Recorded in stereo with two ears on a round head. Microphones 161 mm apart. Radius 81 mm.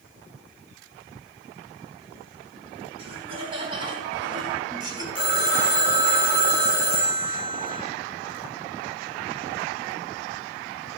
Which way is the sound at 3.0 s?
30° right (ahead or behind).